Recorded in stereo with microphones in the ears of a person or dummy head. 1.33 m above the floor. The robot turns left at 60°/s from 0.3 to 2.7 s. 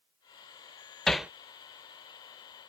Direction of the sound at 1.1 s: Centre (ahead or behind).